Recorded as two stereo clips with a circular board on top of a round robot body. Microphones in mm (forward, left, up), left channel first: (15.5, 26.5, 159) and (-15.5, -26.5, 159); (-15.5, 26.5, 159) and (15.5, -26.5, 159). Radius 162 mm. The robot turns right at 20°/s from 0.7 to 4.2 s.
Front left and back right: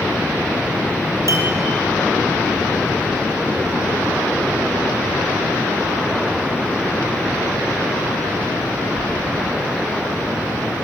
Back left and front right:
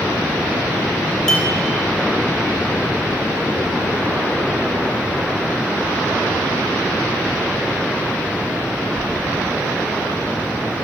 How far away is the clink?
About 0.9 m.